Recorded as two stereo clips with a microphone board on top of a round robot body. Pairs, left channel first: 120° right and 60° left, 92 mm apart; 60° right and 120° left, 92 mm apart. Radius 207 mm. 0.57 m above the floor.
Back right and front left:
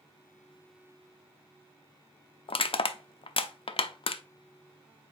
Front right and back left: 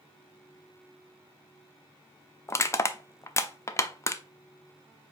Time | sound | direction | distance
2.5 | crushing | 120° right | 0.6 m